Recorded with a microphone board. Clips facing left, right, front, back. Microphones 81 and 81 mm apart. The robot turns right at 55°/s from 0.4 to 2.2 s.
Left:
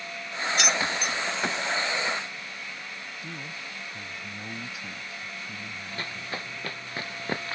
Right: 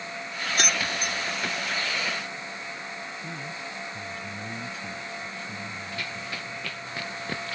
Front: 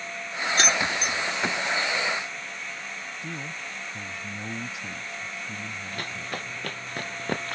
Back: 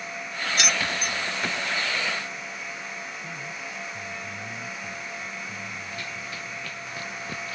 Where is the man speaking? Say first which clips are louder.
Right 3 dB, even; 15° left.